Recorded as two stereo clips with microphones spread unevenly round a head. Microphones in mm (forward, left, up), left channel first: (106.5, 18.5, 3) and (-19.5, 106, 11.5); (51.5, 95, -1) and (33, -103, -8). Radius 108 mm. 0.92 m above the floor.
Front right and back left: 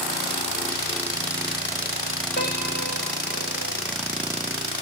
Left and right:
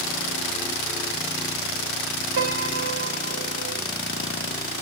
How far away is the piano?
About 3.5 m.